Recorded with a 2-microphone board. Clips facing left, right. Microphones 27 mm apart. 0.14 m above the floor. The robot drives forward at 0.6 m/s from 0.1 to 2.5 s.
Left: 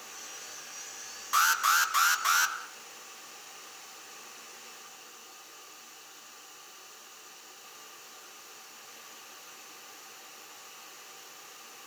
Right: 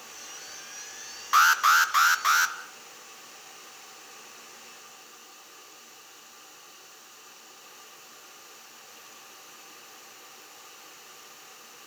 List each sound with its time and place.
1.3 s an alarm: 25° right (ahead or behind), 1.5 m; by 2.5 s 20° right (ahead or behind), 2 m